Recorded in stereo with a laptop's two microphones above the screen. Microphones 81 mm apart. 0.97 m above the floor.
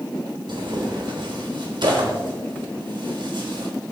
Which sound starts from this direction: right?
Tearing paper, at 0.5 s.